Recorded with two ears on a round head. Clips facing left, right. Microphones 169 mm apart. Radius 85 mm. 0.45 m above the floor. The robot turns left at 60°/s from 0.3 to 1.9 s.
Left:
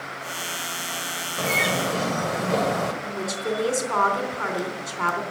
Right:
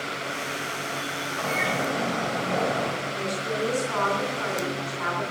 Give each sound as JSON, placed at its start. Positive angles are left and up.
{"t": 1.4, "sound": "a bird", "azimuth_deg": 135, "distance_m": 1.9}
{"t": 3.0, "sound": "a woman speaking", "side_deg": 70, "distance_m": 3.5}